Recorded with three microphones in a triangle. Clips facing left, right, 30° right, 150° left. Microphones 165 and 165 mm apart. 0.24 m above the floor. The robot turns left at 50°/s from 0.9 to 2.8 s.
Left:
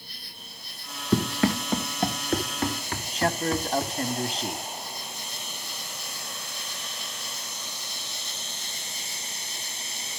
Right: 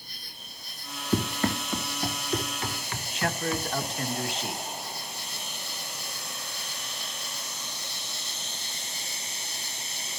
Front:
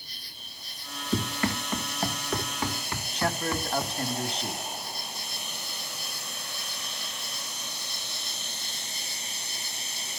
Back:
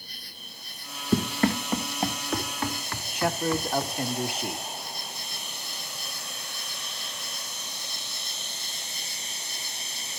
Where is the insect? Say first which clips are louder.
Left 2 dB, back 3 dB; 115° left, 9.5 m; by 10.2 s 20° left, 9.5 m.